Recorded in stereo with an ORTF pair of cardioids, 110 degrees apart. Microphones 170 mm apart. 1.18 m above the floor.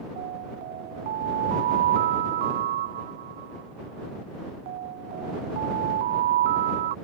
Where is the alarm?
65° right.